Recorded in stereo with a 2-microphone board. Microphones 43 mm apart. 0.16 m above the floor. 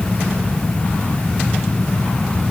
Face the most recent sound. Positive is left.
No sound to turn to.